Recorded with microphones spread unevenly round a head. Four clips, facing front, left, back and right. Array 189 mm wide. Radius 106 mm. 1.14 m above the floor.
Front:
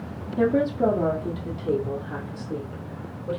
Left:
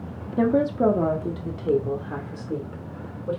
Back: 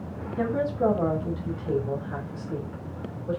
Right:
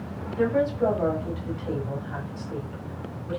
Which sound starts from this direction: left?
A woman speaking, at 0.4 s.